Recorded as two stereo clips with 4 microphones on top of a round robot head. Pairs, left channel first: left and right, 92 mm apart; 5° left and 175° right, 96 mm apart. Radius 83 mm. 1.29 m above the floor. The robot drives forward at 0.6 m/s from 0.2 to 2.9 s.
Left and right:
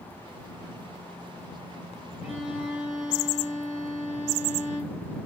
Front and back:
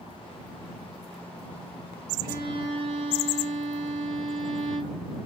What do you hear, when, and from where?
2.2 s a violin: 175° right, 0.9 m